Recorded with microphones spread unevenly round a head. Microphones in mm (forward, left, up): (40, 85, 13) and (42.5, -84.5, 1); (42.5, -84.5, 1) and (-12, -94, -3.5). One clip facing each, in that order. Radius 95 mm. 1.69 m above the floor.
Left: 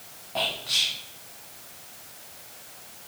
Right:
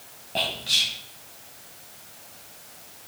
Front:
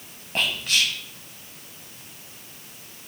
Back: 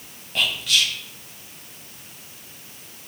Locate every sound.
0.3 s whispering: 35° right, 1.5 m